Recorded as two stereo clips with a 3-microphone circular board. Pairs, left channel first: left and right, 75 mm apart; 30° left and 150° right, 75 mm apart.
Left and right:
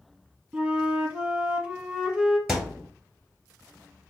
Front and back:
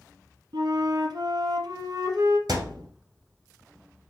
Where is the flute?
165° right, 1.3 m.